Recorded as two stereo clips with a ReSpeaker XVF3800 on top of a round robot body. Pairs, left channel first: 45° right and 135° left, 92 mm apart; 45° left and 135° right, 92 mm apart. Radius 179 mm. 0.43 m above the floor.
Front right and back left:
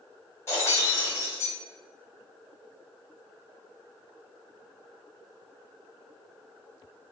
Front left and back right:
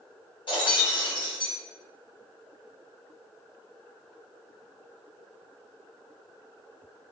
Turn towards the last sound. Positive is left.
turn(degrees=20)